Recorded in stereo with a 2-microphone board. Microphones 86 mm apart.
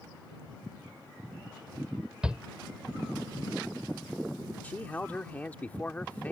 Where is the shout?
10° right (ahead or behind).